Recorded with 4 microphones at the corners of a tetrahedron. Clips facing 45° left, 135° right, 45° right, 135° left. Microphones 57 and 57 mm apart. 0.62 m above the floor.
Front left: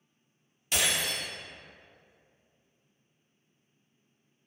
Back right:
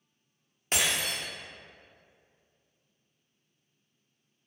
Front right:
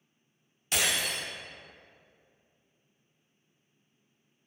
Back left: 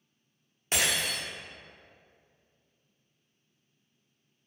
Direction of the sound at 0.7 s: 175° right.